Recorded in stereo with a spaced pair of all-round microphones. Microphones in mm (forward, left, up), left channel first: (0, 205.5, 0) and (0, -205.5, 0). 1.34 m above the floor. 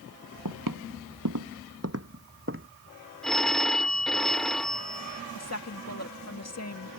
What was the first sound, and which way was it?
Footsteps, 50° right (ahead or behind).